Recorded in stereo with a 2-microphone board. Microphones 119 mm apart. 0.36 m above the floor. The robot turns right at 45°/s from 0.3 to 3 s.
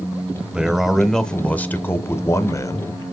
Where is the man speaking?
10° right (ahead or behind), 0.9 m; by 3.0 s 30° left (ahead or behind), 0.9 m.